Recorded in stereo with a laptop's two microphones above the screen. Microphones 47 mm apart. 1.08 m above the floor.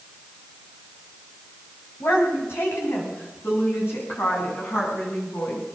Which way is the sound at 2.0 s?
65° left (ahead or behind).